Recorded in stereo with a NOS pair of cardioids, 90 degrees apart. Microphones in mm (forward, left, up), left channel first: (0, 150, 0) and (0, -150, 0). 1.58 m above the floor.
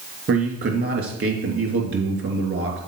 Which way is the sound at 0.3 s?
45° right.